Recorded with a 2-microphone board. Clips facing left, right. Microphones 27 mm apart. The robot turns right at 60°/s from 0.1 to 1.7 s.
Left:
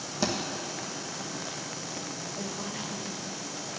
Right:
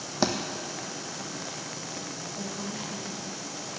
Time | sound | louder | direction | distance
0.2 | a thud | right 3 dB | 35° right (ahead or behind) | 1.0 m
2.4 | a woman speaking | right 1 dB | 15° left (ahead or behind) | 1.1 m